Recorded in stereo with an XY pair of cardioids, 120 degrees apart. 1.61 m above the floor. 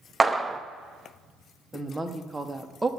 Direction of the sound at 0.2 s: 15° right.